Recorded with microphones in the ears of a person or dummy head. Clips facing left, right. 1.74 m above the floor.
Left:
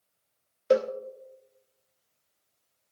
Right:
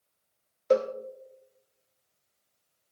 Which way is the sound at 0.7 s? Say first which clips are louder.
Left 1 dB; 10° left (ahead or behind).